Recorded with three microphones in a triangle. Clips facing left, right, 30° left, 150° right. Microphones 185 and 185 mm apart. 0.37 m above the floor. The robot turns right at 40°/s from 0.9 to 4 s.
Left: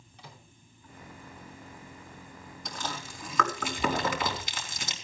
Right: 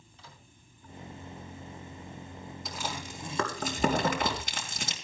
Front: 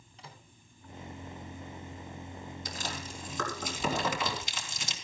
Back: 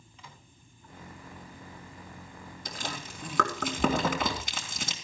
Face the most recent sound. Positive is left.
turn(degrees=-125)